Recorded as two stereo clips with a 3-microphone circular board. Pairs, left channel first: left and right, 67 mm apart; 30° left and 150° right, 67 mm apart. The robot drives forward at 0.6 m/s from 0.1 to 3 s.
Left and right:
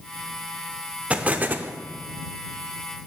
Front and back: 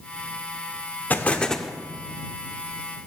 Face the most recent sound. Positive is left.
turn(degrees=-160)